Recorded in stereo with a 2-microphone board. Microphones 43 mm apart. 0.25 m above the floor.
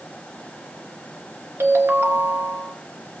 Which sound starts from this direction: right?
A ringtone, at 1.6 s.